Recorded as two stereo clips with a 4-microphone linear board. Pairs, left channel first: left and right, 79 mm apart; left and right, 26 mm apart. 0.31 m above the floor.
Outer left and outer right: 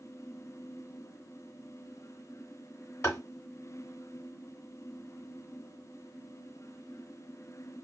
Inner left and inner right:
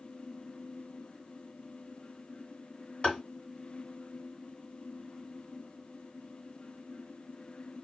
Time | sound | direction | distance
3.0 | tapping | 40° left (ahead or behind) | 1.5 m